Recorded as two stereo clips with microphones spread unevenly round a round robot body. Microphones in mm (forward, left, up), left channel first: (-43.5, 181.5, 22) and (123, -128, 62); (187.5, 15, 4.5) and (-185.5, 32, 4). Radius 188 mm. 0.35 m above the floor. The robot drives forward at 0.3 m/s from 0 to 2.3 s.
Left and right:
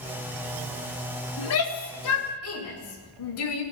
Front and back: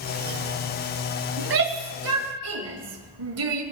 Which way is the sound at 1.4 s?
135° left.